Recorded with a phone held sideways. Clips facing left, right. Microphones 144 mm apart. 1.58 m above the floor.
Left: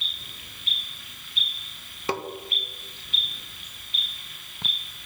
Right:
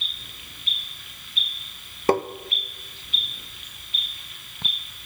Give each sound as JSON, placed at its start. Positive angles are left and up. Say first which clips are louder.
{"t": 2.1, "sound": "tapping", "louder": "right 9 dB", "side_deg": -50, "distance_m": 0.7}